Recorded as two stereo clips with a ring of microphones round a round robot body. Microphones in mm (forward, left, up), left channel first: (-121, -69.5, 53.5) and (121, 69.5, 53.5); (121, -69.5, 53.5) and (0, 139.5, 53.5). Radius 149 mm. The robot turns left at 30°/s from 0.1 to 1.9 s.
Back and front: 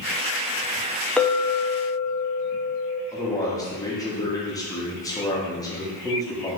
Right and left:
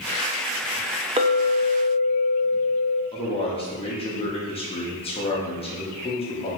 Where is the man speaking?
90° right, 1.2 m.